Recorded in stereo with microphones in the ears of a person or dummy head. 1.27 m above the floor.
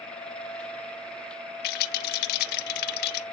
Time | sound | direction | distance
1.6 | a rattle | 65° left (ahead or behind) | 0.5 m